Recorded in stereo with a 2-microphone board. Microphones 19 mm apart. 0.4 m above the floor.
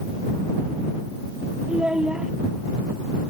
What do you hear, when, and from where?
1.7 s a child speaking: 70° right (ahead or behind)